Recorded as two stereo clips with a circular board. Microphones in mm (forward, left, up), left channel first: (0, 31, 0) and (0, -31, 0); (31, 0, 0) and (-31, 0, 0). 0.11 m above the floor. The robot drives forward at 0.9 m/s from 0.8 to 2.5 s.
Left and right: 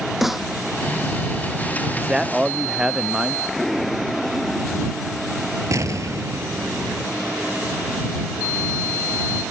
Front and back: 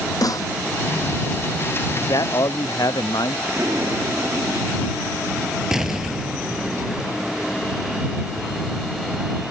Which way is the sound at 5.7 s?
100° right.